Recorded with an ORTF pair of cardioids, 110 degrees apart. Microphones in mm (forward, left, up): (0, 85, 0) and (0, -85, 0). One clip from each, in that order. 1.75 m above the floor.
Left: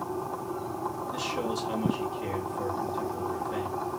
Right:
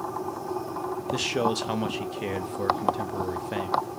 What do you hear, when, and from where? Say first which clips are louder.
1.1 s a man speaking: right 8 dB; 45° right, 0.5 m